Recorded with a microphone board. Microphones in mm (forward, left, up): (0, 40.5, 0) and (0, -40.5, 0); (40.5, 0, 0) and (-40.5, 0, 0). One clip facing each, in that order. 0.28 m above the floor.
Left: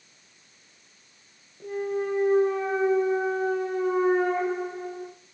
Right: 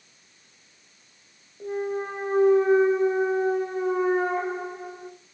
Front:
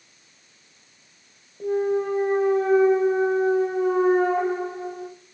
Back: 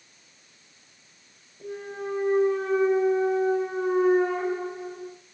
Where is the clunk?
20° right, 5 m.